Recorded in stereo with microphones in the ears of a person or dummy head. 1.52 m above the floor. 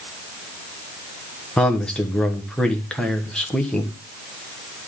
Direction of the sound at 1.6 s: Centre (ahead or behind).